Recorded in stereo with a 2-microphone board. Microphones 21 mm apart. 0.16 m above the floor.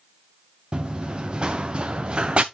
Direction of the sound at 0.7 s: 45° right (ahead or behind).